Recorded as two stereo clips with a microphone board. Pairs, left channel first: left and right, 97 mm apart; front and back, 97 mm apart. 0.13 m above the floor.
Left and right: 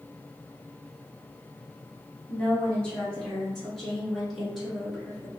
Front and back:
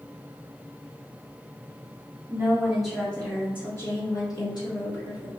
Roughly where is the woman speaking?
Behind left.